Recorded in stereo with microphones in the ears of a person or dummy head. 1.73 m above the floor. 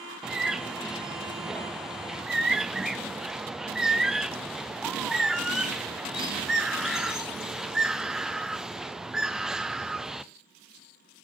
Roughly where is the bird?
Centre.